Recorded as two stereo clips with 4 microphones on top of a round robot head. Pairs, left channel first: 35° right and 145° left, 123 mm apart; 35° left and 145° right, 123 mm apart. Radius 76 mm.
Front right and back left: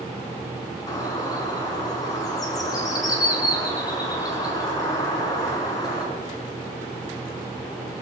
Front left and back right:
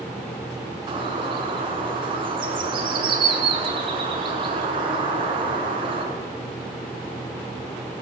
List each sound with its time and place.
0.9 s a bird: 95° right, 6 m